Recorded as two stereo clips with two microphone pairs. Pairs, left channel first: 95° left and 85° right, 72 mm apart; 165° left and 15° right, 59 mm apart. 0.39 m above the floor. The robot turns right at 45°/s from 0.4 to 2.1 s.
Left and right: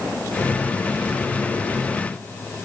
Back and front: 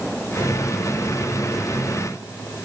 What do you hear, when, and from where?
Only background noise.